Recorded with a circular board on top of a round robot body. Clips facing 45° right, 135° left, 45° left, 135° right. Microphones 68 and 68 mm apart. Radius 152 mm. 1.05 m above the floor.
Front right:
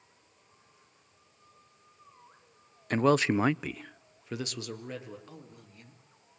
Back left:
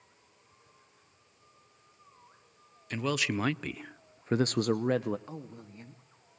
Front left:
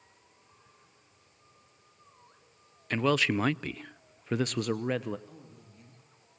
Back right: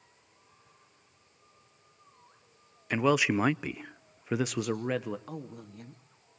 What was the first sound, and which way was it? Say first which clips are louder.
A man speaking: front right 7 dB, back right 1 dB; 60° right.